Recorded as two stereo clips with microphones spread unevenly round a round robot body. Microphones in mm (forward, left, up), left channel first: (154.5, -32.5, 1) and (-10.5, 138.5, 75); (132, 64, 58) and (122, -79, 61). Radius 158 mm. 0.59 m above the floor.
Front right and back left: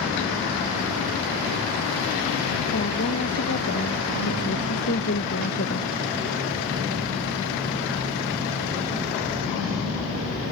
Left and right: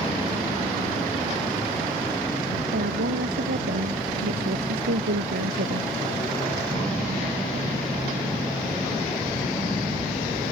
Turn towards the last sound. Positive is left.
turn(degrees=-105)